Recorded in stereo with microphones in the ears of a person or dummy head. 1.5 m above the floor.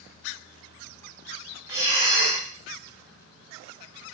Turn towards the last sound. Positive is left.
turn(degrees=-20)  # may be behind; listen again after turning